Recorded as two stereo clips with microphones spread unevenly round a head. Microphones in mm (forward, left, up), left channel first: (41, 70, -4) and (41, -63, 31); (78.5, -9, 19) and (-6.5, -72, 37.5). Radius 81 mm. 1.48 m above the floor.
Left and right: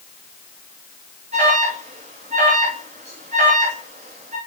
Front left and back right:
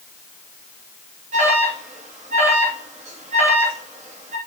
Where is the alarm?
145° right, 3.5 m.